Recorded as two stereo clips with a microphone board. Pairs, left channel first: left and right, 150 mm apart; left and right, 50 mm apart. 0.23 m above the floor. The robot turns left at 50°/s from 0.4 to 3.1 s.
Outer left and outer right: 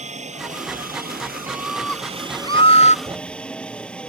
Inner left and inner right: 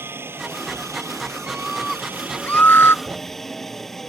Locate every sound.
0.0 s a helicopter: 50° right; by 4.1 s 175° left
1.5 s a scream: 165° right; by 3.0 s 120° left
3.0 s a thud: 30° right (ahead or behind)